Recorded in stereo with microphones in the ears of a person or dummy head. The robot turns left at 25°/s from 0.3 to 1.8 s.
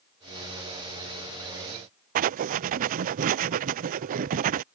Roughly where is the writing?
Right.